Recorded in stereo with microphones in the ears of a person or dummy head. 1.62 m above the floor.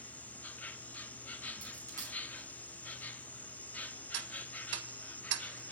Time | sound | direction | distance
0.0 | an insect | 5° left (ahead or behind) | 0.8 m
1.6 | a dropped coin | 15° right (ahead or behind) | 5 m
4.1 | ticking | 60° right (ahead or behind) | 1.4 m